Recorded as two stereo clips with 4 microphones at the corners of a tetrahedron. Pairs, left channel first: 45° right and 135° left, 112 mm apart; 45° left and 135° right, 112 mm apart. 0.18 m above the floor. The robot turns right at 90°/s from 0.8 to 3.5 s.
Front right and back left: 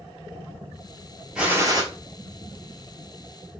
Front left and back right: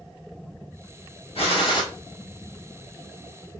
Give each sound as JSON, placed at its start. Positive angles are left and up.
{"t": 1.4, "sound": "a gunshot", "azimuth_deg": 50, "distance_m": 1.1}